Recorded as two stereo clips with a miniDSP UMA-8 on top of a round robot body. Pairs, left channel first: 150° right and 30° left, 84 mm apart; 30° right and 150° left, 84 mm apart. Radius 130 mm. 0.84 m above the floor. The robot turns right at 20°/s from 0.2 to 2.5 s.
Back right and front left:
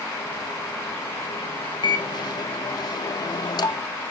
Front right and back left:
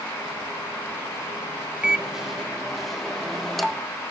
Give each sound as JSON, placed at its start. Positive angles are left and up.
{"t": 1.8, "sound": "a microwave", "azimuth_deg": -135, "distance_m": 0.8}